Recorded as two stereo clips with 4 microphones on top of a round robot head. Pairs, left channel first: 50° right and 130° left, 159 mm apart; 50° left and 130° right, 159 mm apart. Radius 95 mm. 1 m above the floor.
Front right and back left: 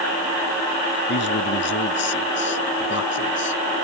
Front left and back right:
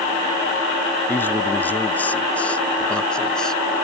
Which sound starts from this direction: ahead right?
A man speaking, at 1.1 s.